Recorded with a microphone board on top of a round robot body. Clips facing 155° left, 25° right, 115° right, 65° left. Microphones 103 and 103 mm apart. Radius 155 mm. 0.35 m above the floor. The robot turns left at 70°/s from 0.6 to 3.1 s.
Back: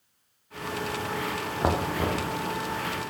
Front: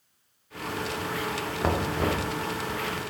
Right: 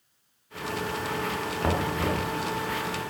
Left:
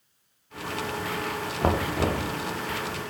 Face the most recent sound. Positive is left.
turn(degrees=0)